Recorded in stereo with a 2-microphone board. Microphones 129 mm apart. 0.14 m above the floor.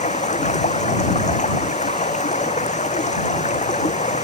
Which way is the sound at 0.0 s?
65° left (ahead or behind).